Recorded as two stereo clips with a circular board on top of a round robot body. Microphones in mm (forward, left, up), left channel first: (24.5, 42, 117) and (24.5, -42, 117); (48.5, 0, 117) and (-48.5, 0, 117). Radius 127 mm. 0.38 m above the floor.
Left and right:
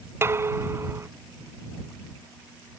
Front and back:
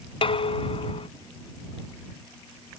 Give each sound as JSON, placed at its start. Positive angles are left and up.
{"t": 0.2, "sound": "dishes clattering", "azimuth_deg": -30}